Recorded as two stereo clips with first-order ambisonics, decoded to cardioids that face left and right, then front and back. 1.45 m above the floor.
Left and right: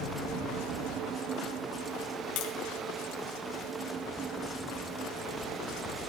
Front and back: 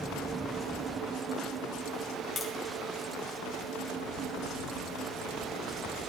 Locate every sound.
2.4 s tapping: 75° left, 1.6 m